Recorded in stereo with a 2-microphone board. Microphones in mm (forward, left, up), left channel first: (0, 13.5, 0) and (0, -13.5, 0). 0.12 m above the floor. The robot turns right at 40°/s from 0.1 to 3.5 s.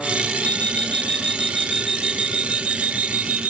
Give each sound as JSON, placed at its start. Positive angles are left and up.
{"t": 0.4, "sound": "an alarm clock", "azimuth_deg": 125}